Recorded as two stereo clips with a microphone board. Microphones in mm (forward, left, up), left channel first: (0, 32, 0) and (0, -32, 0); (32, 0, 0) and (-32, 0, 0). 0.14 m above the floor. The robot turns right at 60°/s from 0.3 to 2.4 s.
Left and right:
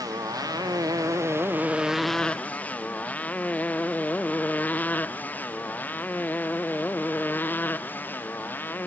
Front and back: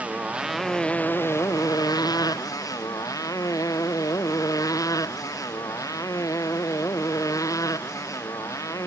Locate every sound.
0.0 s a motorcycle: 110° right; by 8.9 s 30° left